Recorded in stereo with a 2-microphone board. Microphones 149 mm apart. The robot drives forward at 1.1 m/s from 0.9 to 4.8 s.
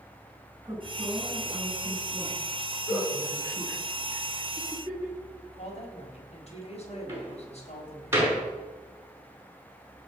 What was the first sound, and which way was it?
A woman speaking, 20° right (ahead or behind).